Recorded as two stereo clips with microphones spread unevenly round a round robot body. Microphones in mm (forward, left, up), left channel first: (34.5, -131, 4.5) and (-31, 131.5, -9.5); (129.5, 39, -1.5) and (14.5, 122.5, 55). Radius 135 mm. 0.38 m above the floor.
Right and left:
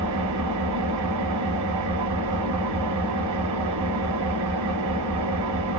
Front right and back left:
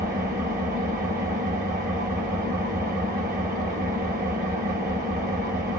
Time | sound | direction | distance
0.0 | an engine running | 110° left | 1.4 m